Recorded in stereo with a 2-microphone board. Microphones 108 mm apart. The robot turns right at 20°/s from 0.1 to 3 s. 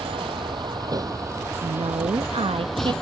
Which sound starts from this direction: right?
A woman speaking, at 1.6 s.